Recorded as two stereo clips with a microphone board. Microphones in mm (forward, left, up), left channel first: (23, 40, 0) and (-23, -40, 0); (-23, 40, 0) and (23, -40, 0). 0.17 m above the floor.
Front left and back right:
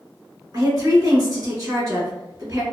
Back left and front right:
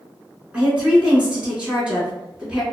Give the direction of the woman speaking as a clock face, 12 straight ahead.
4 o'clock.